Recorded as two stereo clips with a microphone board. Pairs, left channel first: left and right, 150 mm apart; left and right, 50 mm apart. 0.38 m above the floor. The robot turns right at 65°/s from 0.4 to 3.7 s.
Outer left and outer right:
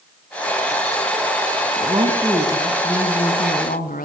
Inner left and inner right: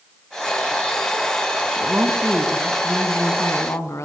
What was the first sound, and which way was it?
A woman speaking, 45° right.